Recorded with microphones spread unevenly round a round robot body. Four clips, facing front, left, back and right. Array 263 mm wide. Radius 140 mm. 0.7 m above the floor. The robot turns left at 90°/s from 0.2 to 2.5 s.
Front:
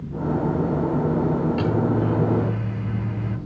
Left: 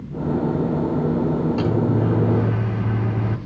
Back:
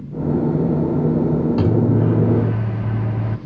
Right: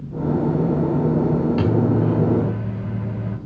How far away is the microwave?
About 1.7 m.